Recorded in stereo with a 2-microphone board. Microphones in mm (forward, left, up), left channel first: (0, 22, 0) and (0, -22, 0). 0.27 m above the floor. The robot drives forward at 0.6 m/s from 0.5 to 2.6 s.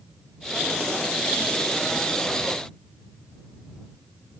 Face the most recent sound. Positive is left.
No sound to turn to.